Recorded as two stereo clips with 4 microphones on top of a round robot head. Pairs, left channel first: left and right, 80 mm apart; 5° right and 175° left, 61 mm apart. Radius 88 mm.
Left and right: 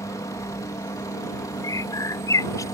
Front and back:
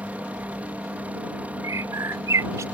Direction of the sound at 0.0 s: 120° left.